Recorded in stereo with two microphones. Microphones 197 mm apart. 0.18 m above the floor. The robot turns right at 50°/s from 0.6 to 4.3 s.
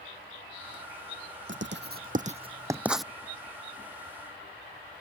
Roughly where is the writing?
Right.